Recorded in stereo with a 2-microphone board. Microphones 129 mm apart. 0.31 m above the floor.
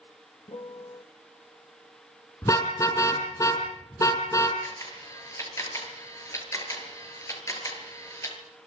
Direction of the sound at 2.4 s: 25° left (ahead or behind).